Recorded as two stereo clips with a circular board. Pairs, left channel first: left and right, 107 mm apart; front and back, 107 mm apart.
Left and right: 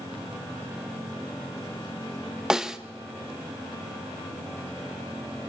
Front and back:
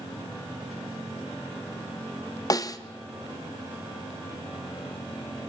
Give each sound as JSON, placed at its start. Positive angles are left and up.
{"t": 2.5, "sound": "a snare drum", "azimuth_deg": -10, "distance_m": 1.0}